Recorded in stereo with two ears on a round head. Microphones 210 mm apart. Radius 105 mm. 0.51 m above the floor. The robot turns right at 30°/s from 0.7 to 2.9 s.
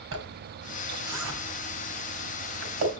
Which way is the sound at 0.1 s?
60° right (ahead or behind).